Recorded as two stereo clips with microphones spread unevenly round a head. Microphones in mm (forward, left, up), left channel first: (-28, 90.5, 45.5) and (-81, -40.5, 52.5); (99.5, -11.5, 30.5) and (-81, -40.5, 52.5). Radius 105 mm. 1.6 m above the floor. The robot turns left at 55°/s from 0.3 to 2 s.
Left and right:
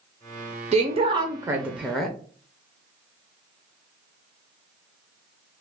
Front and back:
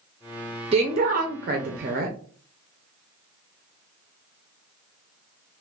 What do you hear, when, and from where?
0.7 s a woman speaking: 130° right, 0.5 m; by 2.2 s 160° left, 0.5 m